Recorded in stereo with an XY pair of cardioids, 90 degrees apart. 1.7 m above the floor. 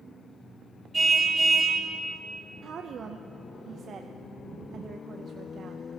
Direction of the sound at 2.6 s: 55° right.